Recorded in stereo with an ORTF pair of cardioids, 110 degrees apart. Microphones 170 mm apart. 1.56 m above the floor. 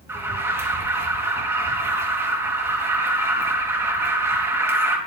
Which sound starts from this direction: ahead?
An alarm, at 0.1 s.